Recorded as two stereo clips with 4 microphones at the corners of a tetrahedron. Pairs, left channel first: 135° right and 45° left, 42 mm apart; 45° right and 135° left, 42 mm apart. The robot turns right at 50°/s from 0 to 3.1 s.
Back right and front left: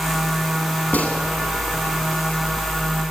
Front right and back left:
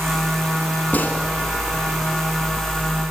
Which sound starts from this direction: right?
A gunshot, at 0.9 s.